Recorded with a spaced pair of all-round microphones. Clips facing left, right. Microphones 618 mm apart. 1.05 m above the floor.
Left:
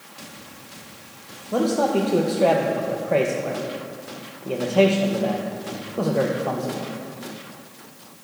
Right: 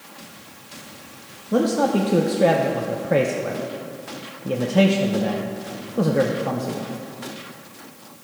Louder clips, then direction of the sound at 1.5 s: Right 1 dB; 45° right (ahead or behind).